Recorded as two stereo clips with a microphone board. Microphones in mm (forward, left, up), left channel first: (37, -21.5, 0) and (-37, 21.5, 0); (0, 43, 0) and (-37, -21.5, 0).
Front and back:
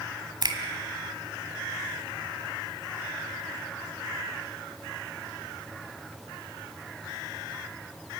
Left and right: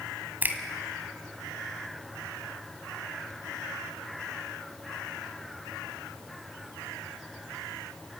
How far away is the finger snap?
About 1.7 m.